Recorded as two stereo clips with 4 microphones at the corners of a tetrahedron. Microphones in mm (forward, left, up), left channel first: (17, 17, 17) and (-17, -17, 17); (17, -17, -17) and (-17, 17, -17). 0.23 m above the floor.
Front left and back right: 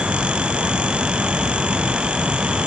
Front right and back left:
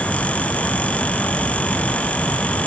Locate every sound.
Only background noise.